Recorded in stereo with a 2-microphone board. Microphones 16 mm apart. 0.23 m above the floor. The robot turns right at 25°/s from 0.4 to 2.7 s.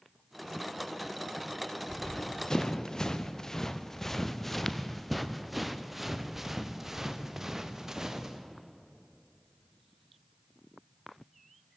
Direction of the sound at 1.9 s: 35° left (ahead or behind).